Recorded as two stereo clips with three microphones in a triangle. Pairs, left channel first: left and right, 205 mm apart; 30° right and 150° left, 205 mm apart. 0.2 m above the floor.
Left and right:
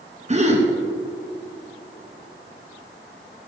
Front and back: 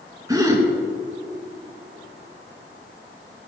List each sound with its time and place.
0.3 s a gasp: 140° right, 2 m